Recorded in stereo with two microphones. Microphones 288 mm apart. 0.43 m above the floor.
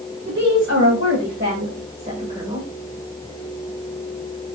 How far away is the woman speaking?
About 2.5 m.